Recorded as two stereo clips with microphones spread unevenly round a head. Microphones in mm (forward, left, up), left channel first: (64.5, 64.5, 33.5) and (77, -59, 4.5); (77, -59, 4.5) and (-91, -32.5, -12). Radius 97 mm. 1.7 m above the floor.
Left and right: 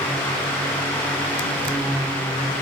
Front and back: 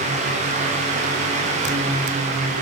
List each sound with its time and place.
Only background noise.